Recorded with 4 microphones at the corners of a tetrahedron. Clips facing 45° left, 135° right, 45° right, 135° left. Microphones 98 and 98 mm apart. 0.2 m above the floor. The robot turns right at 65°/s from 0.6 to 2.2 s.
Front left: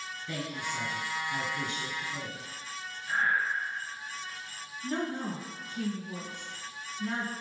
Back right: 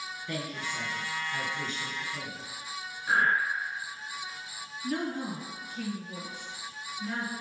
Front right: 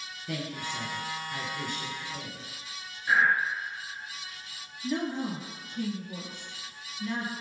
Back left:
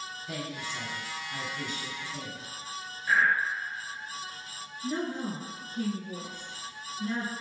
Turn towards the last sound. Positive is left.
turn(degrees=105)